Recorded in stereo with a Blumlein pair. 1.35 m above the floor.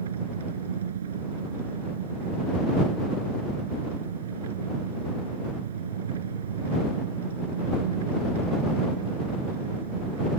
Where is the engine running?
60° right.